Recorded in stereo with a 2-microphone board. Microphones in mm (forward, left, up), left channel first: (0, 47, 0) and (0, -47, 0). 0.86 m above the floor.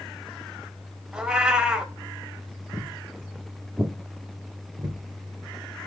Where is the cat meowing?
10° right (ahead or behind), 0.7 m.